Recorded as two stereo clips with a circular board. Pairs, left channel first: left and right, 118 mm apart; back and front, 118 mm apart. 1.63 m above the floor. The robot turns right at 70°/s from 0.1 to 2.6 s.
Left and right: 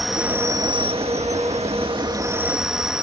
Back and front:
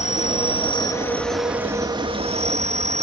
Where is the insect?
Straight behind; by 3.0 s 5° right.